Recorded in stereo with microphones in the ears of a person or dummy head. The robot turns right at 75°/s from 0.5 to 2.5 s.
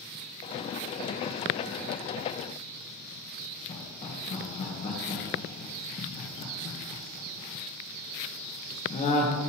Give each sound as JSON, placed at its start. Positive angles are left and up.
{"t": 3.7, "sound": "laughter", "side_deg": 35, "distance_m": 1.6}